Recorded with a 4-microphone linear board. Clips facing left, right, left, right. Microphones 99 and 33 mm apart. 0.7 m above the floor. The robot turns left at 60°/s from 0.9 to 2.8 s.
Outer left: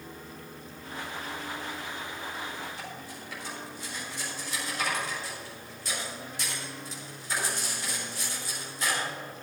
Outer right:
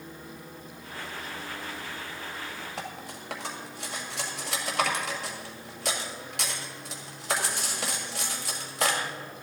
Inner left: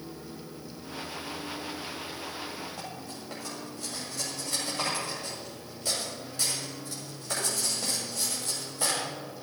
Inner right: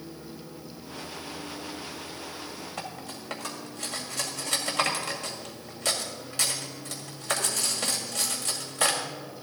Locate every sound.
2.8 s cutlery clinking: 80° right, 2 m; by 9.0 s 75° right (ahead or behind), 2 m